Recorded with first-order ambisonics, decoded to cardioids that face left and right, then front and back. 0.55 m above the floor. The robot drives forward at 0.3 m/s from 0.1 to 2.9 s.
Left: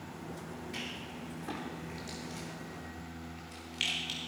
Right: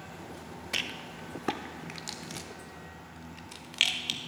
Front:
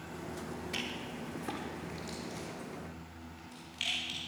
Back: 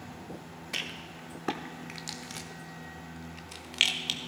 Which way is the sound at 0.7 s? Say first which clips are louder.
Right 9 dB, back 4 dB; 110° right.